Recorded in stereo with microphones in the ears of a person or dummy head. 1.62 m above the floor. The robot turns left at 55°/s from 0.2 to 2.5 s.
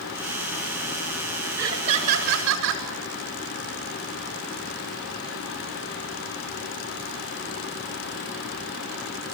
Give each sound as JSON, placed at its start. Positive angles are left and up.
{"t": 1.6, "sound": "laughter", "azimuth_deg": -15, "distance_m": 7.0}